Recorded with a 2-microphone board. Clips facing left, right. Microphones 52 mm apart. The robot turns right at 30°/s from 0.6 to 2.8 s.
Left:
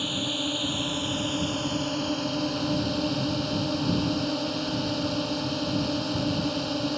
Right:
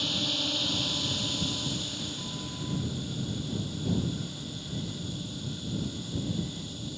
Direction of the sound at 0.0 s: 15° left.